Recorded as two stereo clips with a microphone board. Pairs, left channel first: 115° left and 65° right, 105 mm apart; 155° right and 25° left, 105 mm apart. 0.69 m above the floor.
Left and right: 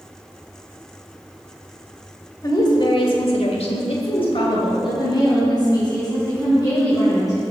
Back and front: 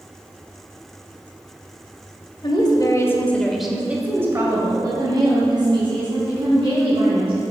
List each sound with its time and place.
2.4 s a woman speaking: 165° left, 2 m; by 7.5 s 55° left, 7 m